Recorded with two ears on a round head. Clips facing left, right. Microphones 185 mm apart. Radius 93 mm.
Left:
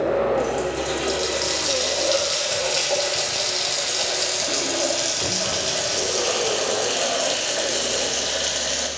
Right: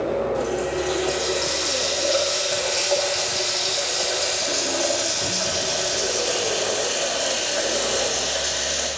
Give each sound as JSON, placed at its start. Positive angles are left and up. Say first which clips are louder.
{"t": 0.4, "sound": "a running tap", "louder": "even", "side_deg": 75, "distance_m": 1.6}